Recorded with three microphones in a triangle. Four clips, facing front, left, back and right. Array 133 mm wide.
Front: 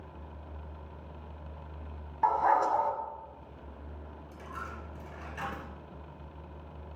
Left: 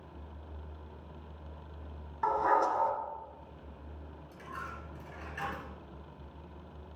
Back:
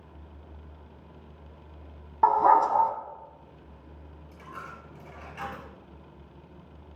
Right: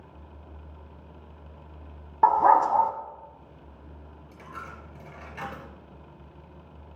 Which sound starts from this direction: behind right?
A dog barking, at 2.2 s.